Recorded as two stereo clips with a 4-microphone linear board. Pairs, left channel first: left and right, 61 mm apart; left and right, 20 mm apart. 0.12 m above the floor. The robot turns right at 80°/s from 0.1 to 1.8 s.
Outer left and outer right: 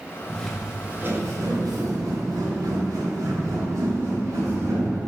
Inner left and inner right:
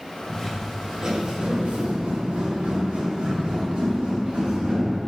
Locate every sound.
0.3 s footsteps: 15° left (ahead or behind), 2 m; by 5.0 s 50° right (ahead or behind), 4.5 m